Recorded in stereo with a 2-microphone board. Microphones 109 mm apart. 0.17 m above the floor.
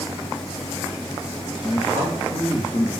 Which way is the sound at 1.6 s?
55° left (ahead or behind).